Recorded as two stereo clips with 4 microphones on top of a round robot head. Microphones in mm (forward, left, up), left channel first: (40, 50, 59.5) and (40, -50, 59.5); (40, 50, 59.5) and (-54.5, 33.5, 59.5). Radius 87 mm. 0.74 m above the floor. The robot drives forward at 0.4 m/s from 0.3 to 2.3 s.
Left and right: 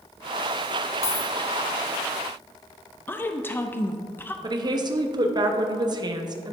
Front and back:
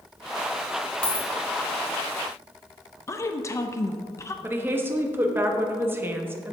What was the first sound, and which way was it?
A dropped coin, 85° left.